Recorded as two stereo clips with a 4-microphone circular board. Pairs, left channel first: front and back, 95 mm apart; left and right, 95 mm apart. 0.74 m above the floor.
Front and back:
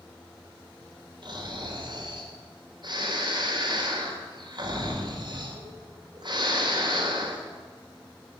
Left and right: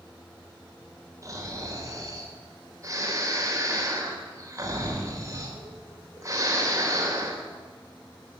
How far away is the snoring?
About 3 m.